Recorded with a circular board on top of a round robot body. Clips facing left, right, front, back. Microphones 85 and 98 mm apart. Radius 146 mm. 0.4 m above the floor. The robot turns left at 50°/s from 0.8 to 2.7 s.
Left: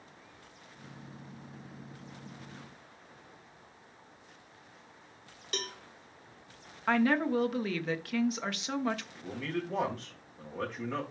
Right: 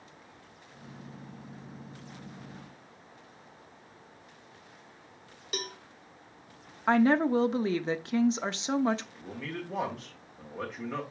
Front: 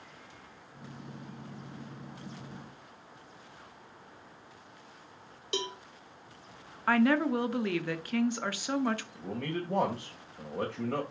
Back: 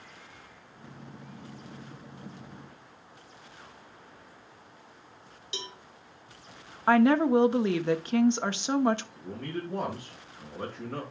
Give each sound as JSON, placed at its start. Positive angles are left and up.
{"t": 5.5, "sound": "a cowbell", "azimuth_deg": -10, "distance_m": 0.9}
{"t": 6.9, "sound": "a woman speaking", "azimuth_deg": -135, "distance_m": 1.1}
{"t": 9.2, "sound": "a man speaking", "azimuth_deg": 0, "distance_m": 2.5}